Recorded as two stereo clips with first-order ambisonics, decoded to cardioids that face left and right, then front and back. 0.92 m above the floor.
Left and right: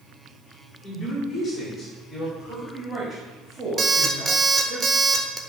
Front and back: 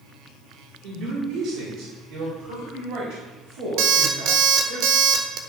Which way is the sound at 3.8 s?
160° right.